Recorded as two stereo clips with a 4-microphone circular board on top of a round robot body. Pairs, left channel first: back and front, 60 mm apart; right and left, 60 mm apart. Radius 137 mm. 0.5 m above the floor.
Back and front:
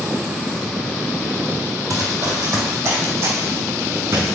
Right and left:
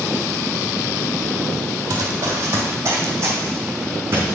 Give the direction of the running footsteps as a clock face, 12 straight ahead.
11 o'clock.